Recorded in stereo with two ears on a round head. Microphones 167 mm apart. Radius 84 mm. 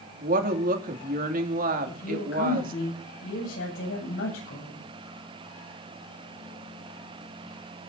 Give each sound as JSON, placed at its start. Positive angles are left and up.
{"t": 0.2, "sound": "a woman speaking", "side_deg": -50, "distance_m": 3.0}
{"t": 1.9, "sound": "a woman speaking", "side_deg": 75, "distance_m": 8.0}